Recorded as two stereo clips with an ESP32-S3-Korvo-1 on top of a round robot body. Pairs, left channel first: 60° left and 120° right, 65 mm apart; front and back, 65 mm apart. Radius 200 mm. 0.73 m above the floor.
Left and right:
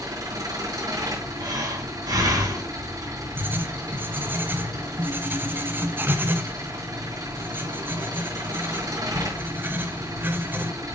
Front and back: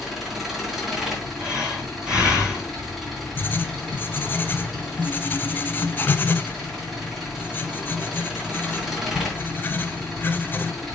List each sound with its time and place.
0.0 s an engine running: 95° right, 3.5 m
1.4 s breathing: 105° right, 3 m
3.4 s writing: 60° right, 0.6 m